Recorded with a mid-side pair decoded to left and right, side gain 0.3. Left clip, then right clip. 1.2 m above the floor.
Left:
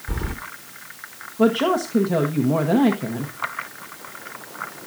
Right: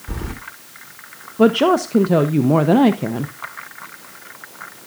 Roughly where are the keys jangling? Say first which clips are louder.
Even; ahead.